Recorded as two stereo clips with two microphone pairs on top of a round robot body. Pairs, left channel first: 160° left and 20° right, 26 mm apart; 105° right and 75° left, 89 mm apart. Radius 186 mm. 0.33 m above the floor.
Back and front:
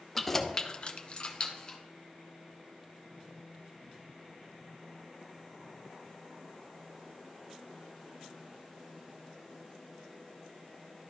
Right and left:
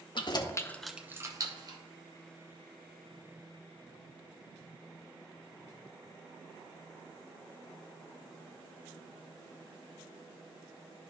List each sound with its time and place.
0.1 s keys jangling: 120° right, 1.2 m; by 1.8 s 110° left, 1.6 m